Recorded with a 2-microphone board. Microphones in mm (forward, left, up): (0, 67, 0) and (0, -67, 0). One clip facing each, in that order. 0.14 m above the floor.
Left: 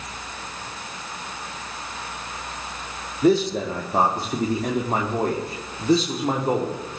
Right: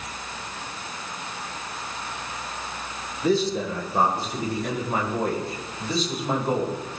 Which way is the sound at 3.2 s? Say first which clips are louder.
Left 4 dB; 70° left (ahead or behind).